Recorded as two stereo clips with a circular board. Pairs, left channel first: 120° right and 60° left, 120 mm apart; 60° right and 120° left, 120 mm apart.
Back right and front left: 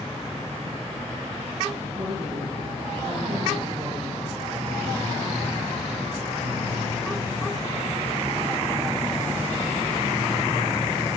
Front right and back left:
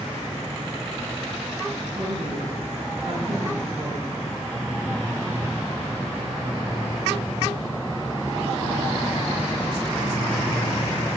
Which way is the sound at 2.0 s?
100° left.